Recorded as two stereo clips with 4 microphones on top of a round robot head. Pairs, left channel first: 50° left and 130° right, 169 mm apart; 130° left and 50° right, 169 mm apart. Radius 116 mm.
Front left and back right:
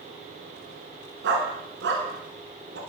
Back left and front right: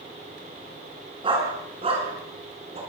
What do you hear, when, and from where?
1.2 s a dog barking: 110° right, 7 m; by 2.8 s 105° right, 6.5 m